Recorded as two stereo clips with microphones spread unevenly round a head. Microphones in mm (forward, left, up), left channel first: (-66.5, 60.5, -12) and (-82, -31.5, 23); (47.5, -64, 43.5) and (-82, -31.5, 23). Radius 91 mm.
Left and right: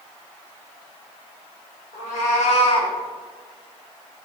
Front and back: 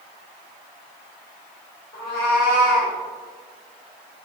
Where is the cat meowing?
45° left, 1.2 m; by 2.9 s 140° left, 0.7 m.